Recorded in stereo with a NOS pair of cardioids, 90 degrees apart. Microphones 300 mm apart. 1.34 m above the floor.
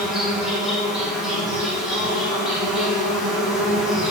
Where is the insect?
Straight ahead, 1.6 m.